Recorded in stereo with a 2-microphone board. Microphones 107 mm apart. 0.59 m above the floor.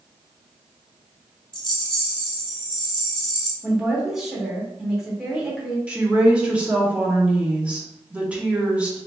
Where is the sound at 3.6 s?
5° right (ahead or behind), 1.6 m.